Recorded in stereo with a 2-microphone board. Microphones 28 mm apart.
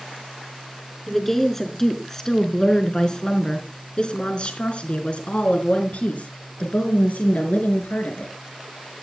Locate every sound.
1.1 s a woman speaking: 10° left (ahead or behind), 4 m; by 8.3 s 75° left (ahead or behind), 5.5 m